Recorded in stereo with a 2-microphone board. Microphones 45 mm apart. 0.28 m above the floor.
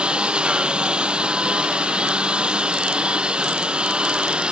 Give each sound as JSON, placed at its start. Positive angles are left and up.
{"t": 0.0, "sound": "a lawn mower", "side_deg": -20}